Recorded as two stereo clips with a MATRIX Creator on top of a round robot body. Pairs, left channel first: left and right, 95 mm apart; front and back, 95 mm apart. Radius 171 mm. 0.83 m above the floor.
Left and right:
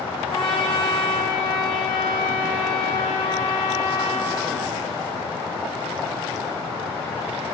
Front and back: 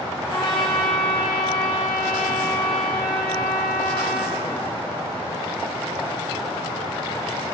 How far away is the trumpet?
About 0.5 m.